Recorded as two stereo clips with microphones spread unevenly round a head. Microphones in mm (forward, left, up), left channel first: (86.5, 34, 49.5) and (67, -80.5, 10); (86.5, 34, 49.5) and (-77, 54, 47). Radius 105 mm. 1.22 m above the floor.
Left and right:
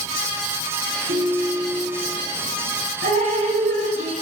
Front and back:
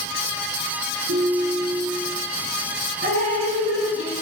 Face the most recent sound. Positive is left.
turn(degrees=-140)